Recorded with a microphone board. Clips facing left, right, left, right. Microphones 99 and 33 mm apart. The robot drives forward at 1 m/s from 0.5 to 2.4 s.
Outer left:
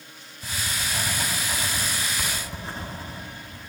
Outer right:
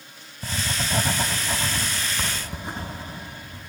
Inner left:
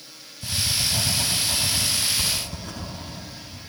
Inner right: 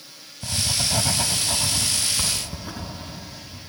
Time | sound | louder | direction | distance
0.4 | writing | outer right 3 dB, even | 40° right (ahead or behind) | 0.8 m